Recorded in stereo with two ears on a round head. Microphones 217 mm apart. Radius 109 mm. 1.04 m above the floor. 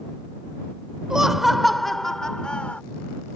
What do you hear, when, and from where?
1.1 s laughter: 5° right (ahead or behind); by 2.8 s 5° left (ahead or behind)